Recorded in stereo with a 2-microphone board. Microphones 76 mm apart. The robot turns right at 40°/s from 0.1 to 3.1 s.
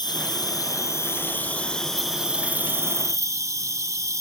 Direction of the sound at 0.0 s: 105° left.